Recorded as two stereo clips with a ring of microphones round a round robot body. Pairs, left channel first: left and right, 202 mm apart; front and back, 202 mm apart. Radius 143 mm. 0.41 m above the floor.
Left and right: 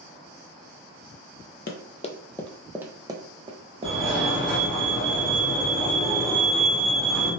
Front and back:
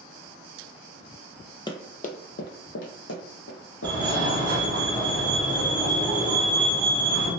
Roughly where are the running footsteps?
Ahead left.